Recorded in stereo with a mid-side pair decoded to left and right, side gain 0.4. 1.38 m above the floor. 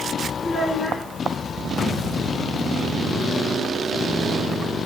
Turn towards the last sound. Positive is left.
turn(degrees=25)